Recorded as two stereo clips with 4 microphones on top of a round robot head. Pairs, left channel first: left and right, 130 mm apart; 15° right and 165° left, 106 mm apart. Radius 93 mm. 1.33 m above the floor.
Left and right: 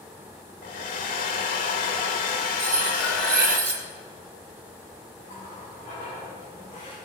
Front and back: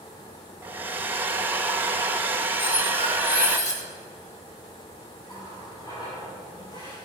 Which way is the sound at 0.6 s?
95° left.